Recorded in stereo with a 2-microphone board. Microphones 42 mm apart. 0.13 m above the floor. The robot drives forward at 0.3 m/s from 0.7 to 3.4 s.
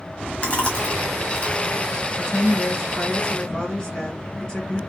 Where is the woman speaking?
20° left (ahead or behind), 1.3 m.